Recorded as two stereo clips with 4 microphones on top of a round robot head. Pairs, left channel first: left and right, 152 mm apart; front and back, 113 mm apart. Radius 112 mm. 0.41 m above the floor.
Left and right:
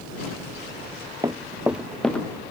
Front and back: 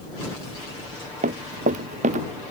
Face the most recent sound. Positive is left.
turn(degrees=170)